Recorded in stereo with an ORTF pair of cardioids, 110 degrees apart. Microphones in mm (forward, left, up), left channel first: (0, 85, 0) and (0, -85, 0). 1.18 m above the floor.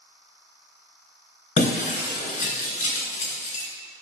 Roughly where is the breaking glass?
Ahead left.